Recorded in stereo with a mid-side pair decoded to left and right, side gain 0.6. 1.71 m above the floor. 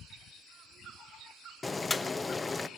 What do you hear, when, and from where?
1.6 s boiling: 20° left, 1.2 m